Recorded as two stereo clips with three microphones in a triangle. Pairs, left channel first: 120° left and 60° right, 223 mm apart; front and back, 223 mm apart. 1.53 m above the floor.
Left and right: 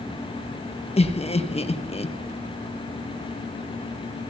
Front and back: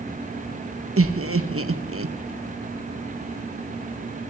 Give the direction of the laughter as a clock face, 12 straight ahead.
6 o'clock.